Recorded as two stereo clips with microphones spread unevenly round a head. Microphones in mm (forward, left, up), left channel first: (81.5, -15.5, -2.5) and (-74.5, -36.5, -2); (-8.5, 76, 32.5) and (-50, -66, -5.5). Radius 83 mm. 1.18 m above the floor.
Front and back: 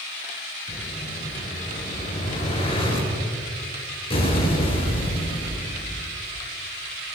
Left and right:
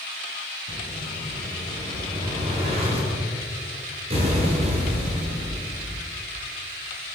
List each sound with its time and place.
0.7 s an explosion: 50° right, 9 m